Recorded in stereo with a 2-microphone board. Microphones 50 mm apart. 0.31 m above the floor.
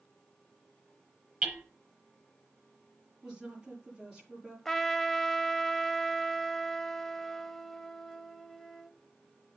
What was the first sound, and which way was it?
Hammering, 10° right (ahead or behind).